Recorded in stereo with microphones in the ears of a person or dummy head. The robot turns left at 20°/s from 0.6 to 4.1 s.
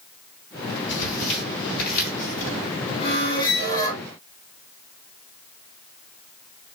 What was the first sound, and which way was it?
Tearing paper, 75° left (ahead or behind).